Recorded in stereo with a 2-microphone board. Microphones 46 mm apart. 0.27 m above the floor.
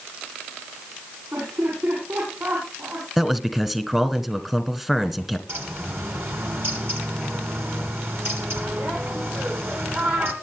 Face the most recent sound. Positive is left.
turn(degrees=-55)  # may be behind; listen again after turning